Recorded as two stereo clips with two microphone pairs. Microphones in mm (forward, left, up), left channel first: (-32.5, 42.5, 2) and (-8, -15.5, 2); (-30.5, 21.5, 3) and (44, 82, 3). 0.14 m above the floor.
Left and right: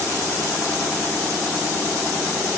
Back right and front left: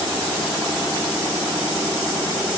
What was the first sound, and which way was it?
Only background noise.